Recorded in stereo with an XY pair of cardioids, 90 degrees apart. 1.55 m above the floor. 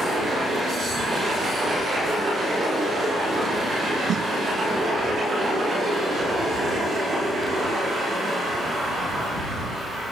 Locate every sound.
4.1 s a snare drum: 60° right